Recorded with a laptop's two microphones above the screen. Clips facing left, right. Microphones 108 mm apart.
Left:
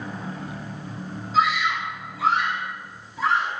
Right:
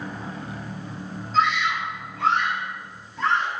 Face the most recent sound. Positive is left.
turn(degrees=5)  # may be behind; listen again after turning